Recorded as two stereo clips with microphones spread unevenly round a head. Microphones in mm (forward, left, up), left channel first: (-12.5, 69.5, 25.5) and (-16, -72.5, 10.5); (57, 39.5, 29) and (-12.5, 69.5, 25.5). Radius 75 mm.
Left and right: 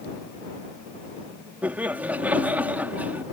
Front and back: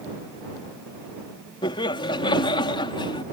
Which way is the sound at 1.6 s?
10° right.